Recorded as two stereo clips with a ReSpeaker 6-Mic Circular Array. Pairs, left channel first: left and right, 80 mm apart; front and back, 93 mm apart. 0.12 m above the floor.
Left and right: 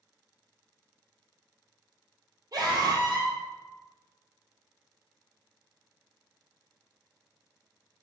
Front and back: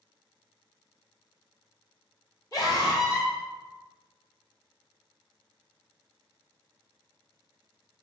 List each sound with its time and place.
2.5 s a scream: 50° right, 3.5 m